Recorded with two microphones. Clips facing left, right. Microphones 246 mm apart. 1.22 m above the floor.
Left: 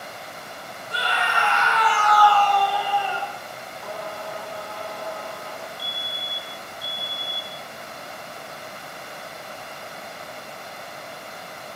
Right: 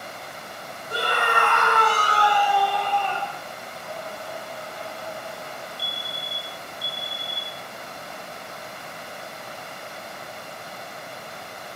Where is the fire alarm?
70° right (ahead or behind), 4 m.